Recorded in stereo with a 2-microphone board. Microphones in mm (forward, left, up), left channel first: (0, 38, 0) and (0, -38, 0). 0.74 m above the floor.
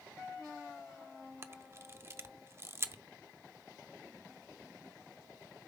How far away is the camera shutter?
About 0.6 m.